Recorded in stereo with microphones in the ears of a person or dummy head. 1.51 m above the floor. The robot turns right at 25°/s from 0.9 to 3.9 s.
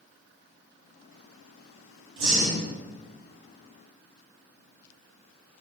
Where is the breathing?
75° right (ahead or behind), 1.8 m; by 2.6 s 65° right (ahead or behind), 1.8 m.